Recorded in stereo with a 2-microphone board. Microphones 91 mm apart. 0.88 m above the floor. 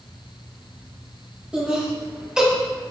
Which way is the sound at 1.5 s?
10° right (ahead or behind).